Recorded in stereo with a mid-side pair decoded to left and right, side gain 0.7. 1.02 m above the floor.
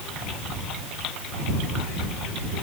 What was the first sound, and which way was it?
Only background noise.